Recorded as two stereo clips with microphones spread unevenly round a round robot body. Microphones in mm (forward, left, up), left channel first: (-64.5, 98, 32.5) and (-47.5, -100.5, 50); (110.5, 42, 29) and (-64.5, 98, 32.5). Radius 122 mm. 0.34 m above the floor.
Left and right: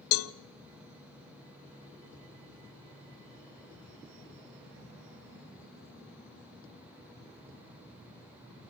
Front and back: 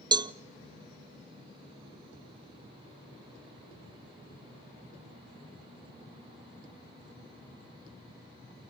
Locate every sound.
0.1 s a cowbell: 95° left, 0.6 m